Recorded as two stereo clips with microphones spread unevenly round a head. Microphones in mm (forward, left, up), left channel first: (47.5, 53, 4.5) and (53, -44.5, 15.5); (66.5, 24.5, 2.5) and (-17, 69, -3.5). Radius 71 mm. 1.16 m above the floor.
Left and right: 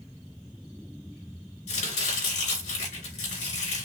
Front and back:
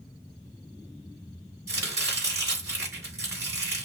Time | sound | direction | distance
1.7 | chopping | 90° left | 3.5 m